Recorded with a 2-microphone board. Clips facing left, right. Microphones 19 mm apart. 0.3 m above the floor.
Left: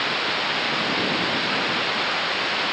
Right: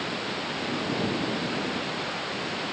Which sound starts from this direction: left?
Running water, at 0.0 s.